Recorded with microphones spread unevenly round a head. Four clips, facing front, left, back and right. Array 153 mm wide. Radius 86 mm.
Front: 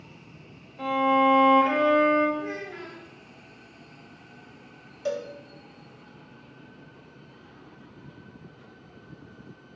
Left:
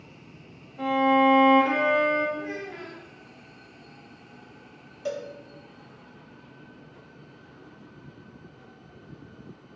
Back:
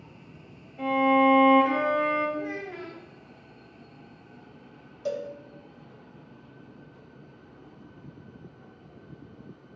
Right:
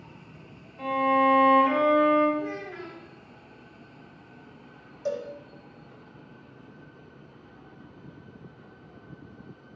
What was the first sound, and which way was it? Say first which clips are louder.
A violin: left 2 dB, even; 135° left.